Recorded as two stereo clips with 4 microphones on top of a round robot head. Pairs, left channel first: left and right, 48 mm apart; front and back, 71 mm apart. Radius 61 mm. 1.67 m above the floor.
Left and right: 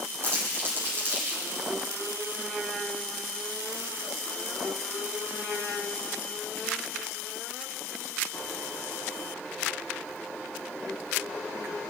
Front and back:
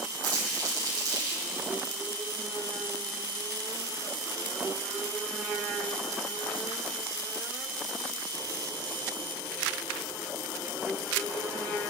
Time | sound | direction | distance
0.2 | crumpling | 135° right | 8.5 m